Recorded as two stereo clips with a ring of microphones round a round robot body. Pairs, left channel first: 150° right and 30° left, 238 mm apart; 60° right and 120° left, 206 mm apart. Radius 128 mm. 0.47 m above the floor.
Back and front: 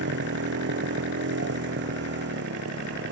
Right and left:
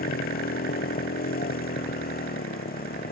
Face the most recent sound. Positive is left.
turn(degrees=-15)